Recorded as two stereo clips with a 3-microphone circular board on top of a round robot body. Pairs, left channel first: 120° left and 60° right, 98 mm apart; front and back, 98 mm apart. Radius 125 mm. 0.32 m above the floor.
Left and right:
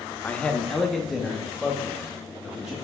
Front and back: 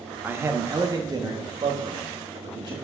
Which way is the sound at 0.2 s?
160° left.